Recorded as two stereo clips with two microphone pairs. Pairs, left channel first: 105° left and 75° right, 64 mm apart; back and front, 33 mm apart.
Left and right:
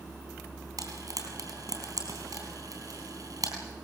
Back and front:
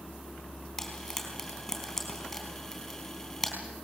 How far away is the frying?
About 4 m.